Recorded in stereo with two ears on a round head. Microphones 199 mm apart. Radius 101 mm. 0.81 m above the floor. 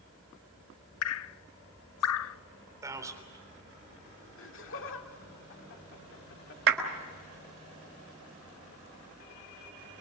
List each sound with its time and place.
1.0 s dripping: 70° left (ahead or behind), 0.5 m
2.8 s a man speaking: 15° right (ahead or behind), 3.5 m
4.4 s laughter: 65° left (ahead or behind), 2 m
6.7 s a clap: 65° right (ahead or behind), 4 m